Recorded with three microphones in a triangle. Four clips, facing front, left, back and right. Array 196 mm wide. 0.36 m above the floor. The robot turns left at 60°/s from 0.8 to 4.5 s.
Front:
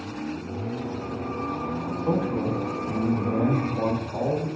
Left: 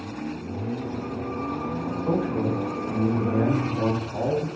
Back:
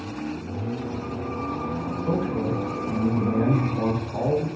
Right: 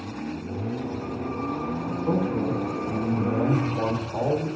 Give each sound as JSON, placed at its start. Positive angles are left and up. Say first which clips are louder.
{"t": 1.9, "sound": "a man speaking", "louder": "even, front 1 dB", "azimuth_deg": 55, "distance_m": 0.8}